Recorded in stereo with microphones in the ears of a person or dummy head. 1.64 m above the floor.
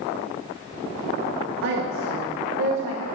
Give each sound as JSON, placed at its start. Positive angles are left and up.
{"t": 1.6, "sound": "a woman speaking", "side_deg": -75, "distance_m": 2.0}